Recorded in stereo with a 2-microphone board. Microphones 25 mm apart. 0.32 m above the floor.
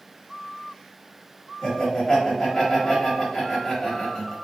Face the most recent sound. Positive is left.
turn(degrees=25)  # may be behind; listen again after turning